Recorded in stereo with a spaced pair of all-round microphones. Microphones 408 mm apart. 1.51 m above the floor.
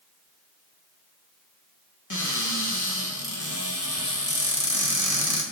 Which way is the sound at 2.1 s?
45° left (ahead or behind).